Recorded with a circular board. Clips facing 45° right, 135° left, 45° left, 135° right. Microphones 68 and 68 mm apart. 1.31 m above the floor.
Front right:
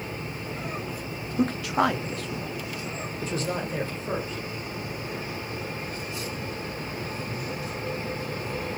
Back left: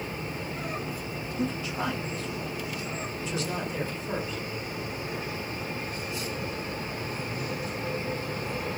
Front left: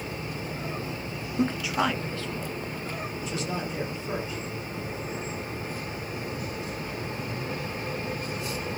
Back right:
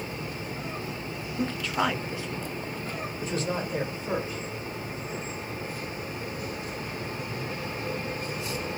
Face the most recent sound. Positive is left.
turn(degrees=-95)